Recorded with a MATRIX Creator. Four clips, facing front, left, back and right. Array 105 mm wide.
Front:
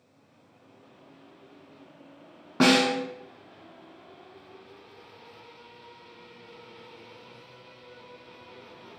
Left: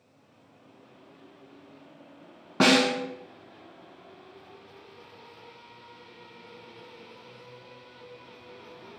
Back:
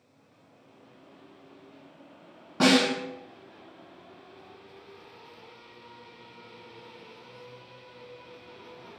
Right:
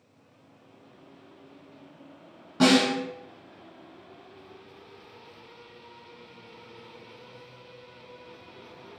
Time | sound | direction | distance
2.6 | a snare drum | 60° left | 0.6 m